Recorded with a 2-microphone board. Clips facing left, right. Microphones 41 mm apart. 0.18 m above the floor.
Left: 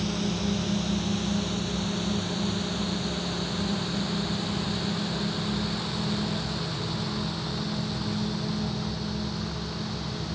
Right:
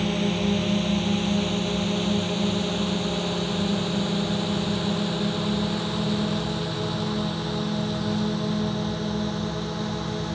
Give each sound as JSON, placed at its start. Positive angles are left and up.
{"t": 0.0, "sound": "a drone", "side_deg": -40}